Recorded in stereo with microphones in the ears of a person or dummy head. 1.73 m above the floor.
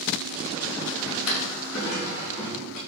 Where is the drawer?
70° left (ahead or behind), 4 m.